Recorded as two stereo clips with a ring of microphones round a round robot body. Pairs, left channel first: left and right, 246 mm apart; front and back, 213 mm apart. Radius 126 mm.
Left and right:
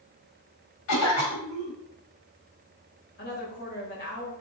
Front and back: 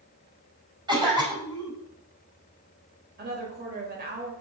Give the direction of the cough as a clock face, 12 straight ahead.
8 o'clock.